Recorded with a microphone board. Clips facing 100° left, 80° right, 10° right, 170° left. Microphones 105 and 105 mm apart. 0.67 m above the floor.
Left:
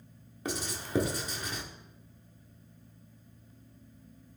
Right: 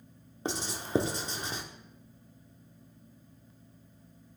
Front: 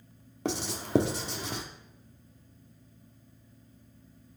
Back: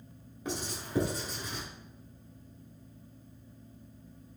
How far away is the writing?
About 0.8 m.